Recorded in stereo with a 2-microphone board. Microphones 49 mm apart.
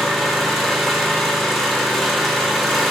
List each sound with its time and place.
0.0 s an engine running: 5° left (ahead or behind), 0.7 m